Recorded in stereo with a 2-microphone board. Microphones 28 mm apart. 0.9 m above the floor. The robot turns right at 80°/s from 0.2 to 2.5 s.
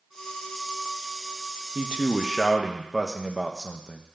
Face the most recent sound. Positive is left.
turn(degrees=0)